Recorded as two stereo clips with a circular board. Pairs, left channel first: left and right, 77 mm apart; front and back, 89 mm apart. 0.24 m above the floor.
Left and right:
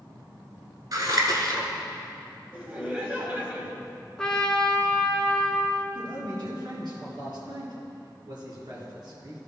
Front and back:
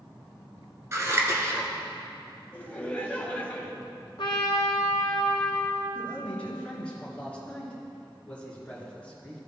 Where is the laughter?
50° right, 1.1 m.